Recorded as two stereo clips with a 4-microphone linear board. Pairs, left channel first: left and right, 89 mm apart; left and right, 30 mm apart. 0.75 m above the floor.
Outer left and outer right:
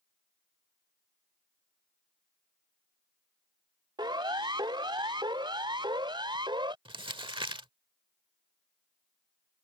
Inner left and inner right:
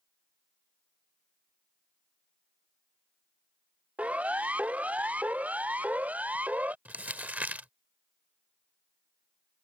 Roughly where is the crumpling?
Right.